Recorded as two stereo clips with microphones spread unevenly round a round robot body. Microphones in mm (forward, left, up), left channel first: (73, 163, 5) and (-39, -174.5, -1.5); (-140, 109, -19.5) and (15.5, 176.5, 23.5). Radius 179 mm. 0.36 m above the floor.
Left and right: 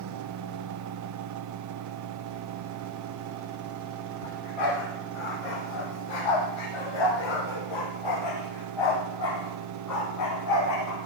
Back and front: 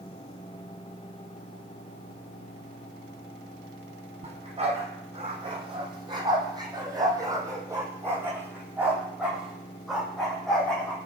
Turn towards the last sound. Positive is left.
turn(degrees=120)